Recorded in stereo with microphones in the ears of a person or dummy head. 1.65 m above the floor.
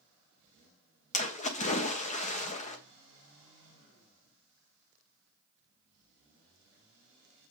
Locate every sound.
1.1 s a splash: 30° left (ahead or behind), 1.3 m